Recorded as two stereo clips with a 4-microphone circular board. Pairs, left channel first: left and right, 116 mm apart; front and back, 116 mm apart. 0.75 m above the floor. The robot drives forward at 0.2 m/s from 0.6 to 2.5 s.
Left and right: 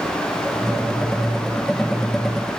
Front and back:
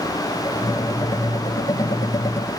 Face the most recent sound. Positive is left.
No sound to turn to.